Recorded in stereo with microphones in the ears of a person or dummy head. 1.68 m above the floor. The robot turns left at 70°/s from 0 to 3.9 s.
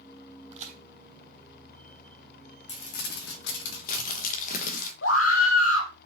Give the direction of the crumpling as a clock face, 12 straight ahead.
7 o'clock.